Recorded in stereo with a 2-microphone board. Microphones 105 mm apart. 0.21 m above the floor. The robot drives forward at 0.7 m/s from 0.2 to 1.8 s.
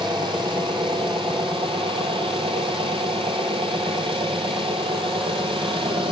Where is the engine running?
50° right (ahead or behind), 5.5 m; by 6.1 s 60° right (ahead or behind), 5 m.